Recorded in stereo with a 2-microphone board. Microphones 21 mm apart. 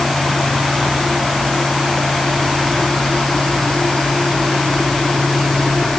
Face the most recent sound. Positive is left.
No sound to turn to.